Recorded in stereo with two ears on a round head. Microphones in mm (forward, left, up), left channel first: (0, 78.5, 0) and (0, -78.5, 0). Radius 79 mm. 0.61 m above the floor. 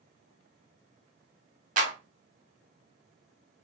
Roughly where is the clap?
Right.